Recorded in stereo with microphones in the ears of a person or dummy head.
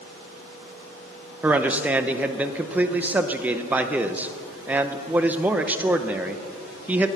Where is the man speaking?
5° right (ahead or behind), 0.6 m.